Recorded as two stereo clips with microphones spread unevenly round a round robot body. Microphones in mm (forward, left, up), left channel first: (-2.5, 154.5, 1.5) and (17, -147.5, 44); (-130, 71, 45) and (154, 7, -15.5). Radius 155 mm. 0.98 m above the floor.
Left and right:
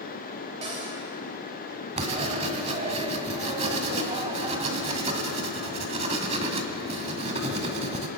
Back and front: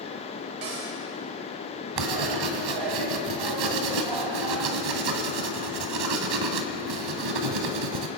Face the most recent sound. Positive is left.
turn(degrees=-20)